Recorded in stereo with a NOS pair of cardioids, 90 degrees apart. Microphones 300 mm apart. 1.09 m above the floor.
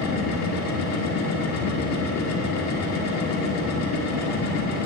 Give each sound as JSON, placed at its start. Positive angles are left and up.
{"t": 0.0, "sound": "a machine running", "azimuth_deg": 65, "distance_m": 1.3}